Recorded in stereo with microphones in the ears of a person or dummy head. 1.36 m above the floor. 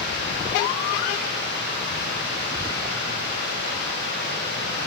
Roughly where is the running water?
Right.